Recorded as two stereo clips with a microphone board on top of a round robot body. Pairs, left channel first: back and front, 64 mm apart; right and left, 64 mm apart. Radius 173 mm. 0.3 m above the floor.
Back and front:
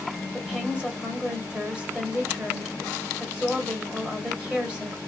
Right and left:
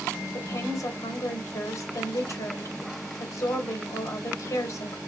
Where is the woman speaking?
75° right, 2.5 m.